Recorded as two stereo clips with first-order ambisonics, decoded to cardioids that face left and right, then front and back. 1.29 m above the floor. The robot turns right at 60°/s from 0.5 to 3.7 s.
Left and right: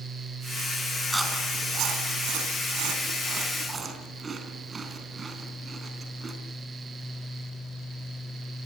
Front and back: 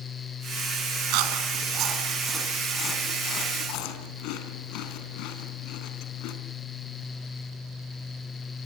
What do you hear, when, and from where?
1.1 s chewing: 175° right, 3.5 m; by 6.3 s 20° right, 3.5 m